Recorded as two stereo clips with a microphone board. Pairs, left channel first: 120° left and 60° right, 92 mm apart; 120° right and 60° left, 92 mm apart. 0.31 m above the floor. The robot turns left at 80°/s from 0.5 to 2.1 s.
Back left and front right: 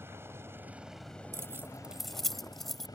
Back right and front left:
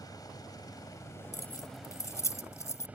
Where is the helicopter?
110° right; by 3.0 s 125° left.